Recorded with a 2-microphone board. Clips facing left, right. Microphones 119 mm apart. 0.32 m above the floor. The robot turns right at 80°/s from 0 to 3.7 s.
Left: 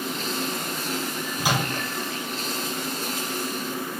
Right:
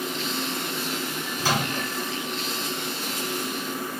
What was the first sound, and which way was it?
A microwave, 20° left (ahead or behind).